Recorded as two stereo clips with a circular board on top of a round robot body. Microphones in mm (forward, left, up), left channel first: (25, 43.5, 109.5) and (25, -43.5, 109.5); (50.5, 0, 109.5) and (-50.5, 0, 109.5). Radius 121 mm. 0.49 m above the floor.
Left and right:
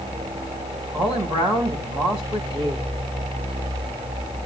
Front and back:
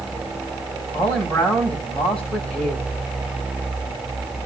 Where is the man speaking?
75° right, 5 m.